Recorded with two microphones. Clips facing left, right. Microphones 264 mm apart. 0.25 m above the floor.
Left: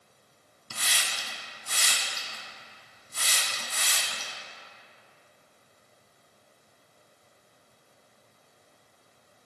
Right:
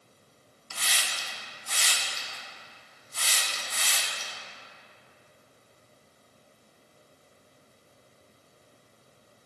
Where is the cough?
I don't hear a cough.